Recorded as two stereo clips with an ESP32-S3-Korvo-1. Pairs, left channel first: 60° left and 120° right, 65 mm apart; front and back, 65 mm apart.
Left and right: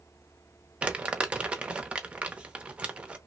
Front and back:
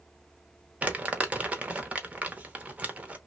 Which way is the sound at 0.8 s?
160° right.